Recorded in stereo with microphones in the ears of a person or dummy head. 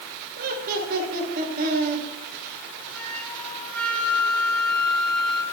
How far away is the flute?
About 6 m.